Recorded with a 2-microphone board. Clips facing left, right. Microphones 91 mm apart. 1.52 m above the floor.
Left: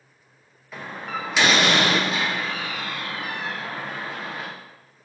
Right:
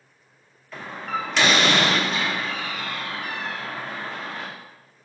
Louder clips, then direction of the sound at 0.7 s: Right 2 dB; 5° left (ahead or behind).